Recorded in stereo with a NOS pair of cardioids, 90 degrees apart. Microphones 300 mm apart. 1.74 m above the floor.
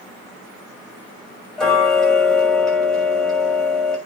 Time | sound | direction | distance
1.6 | ticking | straight ahead | 6 m